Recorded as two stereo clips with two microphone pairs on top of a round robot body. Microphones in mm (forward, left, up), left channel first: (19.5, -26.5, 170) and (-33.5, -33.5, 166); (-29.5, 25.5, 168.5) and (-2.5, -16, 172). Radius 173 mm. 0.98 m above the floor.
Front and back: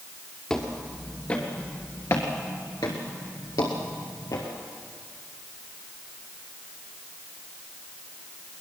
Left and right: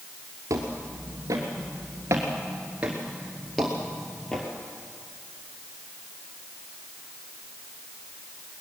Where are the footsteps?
65° right, 1.6 m; by 4.5 s 40° left, 1.8 m.